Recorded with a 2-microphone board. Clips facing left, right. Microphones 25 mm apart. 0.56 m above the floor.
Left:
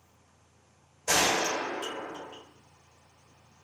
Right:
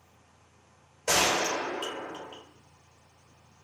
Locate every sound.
1.1 s a gunshot: 55° right (ahead or behind), 1.6 m